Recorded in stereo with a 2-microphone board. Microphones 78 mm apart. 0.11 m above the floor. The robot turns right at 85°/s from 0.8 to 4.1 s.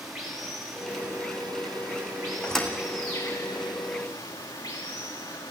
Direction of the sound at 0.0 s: 175° right.